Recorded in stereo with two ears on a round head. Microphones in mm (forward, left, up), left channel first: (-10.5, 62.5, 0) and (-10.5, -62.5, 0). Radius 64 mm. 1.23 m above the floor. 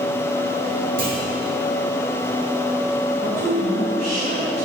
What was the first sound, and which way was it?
A clunk, 65° right (ahead or behind).